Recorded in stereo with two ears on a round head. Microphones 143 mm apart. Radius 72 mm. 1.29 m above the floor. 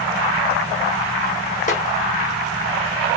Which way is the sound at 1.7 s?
45° left (ahead or behind).